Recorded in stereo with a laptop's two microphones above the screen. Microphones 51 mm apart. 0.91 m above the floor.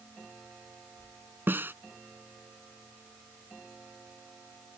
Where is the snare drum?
40° right (ahead or behind).